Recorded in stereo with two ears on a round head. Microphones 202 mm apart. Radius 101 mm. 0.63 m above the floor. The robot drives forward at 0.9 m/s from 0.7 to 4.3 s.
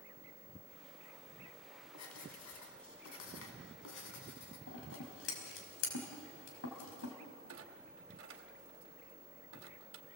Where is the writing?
85° left, 3.5 m; by 4.6 s 55° left (ahead or behind), 4 m.